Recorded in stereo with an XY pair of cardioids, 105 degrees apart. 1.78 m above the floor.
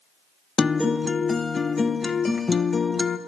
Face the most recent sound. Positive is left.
turn(degrees=30)